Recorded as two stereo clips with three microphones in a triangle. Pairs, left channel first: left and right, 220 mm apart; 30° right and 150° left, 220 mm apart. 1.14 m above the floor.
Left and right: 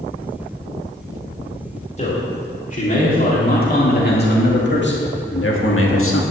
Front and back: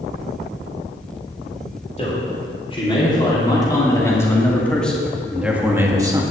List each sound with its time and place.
2.0 s a man speaking: 30° left, 3.5 m; by 6.2 s 80° left, 1.7 m